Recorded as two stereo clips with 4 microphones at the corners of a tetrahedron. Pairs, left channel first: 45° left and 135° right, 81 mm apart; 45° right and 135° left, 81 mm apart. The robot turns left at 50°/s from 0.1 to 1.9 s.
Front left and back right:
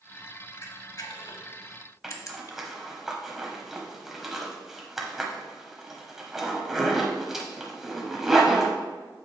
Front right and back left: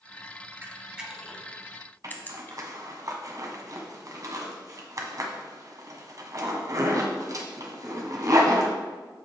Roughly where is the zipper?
Behind left.